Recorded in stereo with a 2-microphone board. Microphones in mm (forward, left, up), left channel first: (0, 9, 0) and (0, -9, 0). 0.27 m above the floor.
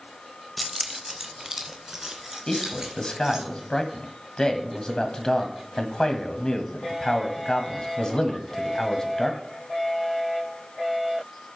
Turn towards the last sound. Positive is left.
turn(degrees=45)  # may be behind; listen again after turning